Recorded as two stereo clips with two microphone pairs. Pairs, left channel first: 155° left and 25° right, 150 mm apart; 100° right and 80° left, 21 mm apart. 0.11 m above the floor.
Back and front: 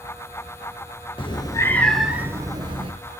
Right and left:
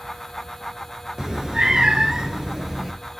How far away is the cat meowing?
About 0.8 m.